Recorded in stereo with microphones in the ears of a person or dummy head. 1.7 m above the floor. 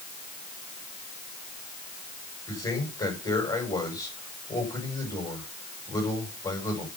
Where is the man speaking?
10° left (ahead or behind), 7 m.